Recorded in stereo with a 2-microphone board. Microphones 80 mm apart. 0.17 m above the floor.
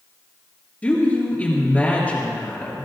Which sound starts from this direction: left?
A woman speaking, at 0.8 s.